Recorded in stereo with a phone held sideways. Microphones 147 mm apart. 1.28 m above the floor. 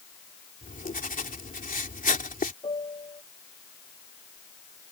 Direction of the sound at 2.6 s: 40° left (ahead or behind).